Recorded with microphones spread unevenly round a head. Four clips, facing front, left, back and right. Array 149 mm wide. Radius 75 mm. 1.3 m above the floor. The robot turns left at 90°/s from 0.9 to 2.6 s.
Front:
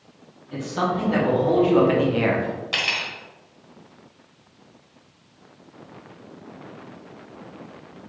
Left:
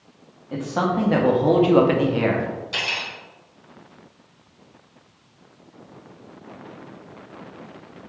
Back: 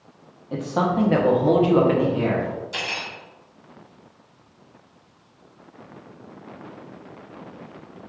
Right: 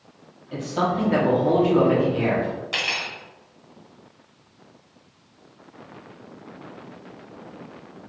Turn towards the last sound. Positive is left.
turn(degrees=-25)